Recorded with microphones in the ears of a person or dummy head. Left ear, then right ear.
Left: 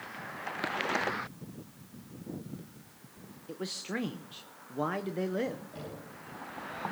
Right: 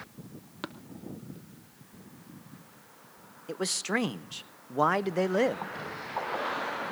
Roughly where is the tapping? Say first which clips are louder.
Left 5 dB; centre.